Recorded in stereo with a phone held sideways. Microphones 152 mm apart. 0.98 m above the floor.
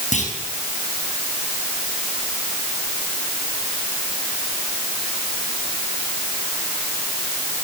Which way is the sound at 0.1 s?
55° left (ahead or behind).